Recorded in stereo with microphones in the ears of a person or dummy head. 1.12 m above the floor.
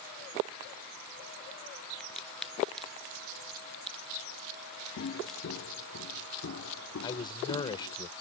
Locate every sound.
2.0 s a crack: 5° left (ahead or behind)
5.0 s footsteps: 55° left (ahead or behind); by 8.0 s 65° left (ahead or behind)
7.0 s a man speaking: 25° left (ahead or behind)